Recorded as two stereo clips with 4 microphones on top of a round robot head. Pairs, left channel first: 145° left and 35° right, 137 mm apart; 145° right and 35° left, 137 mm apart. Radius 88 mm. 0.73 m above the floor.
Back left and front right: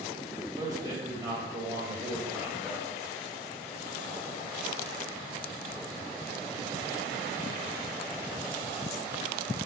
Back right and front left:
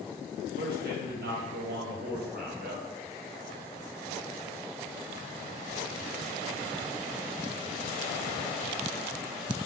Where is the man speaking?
30° left, 3.5 m; by 2.8 s 50° left, 2.5 m.